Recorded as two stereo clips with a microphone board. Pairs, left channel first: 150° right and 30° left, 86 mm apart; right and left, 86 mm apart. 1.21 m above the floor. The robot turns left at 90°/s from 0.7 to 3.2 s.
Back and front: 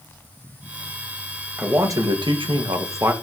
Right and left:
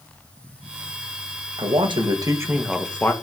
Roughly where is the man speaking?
Left.